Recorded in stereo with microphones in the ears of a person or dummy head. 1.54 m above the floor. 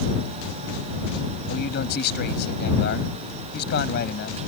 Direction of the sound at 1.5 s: 65° left (ahead or behind).